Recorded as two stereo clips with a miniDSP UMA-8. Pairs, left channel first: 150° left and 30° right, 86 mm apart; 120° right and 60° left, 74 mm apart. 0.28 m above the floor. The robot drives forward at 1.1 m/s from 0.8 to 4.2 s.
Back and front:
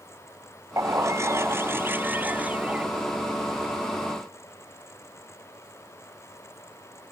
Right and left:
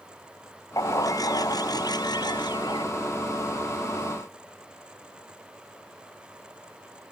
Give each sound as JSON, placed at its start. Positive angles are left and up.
{"t": 0.8, "sound": "a bird", "azimuth_deg": -80}